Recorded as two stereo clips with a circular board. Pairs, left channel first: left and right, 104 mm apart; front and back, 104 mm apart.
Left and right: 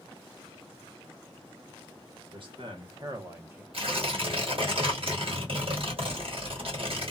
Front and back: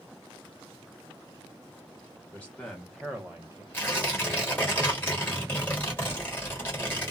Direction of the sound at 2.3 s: 70° right.